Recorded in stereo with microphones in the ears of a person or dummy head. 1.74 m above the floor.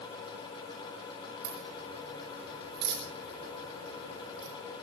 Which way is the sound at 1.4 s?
60° right (ahead or behind).